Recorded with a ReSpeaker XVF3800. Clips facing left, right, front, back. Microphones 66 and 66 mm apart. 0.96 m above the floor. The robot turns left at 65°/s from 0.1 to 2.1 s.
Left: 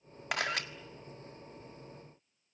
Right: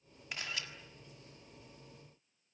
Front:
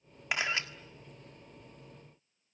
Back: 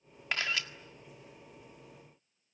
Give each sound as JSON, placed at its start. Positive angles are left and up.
{"t": 0.3, "sound": "a camera shutter", "azimuth_deg": 75, "distance_m": 1.5}